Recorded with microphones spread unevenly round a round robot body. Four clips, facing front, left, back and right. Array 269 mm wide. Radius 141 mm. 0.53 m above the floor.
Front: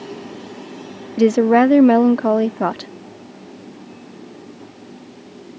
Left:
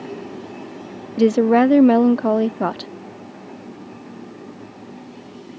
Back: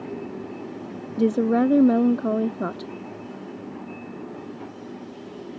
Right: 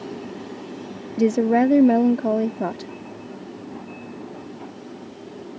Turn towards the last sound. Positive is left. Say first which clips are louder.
# left 4 dB, front 7 dB
turn(degrees=20)